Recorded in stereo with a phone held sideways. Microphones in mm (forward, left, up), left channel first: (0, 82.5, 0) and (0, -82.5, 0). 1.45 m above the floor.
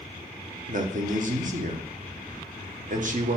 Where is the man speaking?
50° right (ahead or behind), 0.9 m.